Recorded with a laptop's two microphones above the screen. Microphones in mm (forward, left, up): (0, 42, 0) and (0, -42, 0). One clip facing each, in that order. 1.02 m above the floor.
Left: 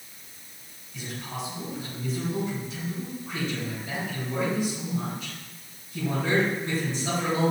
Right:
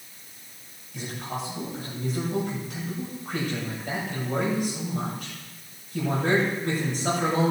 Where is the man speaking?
60° right (ahead or behind), 5 m.